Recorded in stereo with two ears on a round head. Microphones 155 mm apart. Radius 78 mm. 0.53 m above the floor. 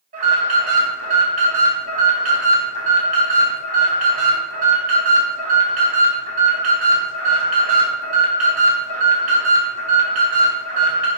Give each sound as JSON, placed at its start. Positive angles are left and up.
{"t": 0.1, "sound": "an alarm", "side_deg": -50, "distance_m": 5.5}